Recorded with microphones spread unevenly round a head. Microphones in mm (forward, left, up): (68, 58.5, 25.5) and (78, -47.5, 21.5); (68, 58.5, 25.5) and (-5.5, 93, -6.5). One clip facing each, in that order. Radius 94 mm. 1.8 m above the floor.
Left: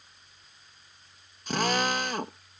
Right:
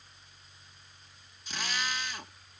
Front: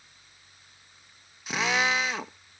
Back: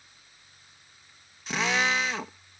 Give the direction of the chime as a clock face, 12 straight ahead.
No chime in this recording.